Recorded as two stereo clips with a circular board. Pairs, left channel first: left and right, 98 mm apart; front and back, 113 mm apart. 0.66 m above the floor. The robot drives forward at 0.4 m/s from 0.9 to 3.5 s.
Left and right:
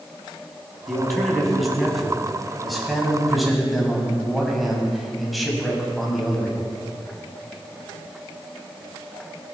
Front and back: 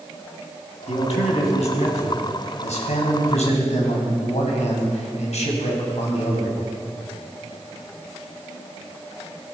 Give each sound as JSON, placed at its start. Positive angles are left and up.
{"t": 0.9, "sound": "a man speaking", "azimuth_deg": 0, "distance_m": 5.0}